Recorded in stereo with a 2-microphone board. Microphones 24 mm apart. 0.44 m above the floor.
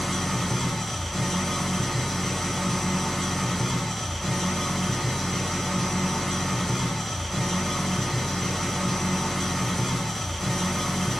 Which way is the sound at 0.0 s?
10° left (ahead or behind).